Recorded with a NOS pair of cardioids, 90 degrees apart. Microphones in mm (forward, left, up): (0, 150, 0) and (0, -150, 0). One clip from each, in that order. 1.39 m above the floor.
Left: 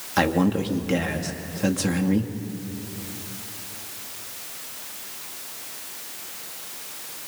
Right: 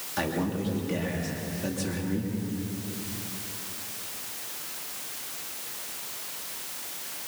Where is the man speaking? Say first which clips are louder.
Left 8 dB; 60° left, 2.5 m.